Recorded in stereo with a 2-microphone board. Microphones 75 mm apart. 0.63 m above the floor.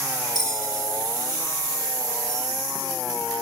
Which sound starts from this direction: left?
A bell, at 0.3 s.